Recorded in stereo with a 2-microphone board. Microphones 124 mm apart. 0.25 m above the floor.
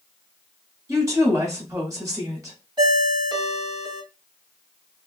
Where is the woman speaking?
25° right (ahead or behind), 1.5 m.